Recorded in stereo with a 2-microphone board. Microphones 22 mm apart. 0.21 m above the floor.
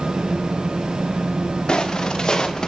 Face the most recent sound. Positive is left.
turn(degrees=35)  # may be behind; listen again after turning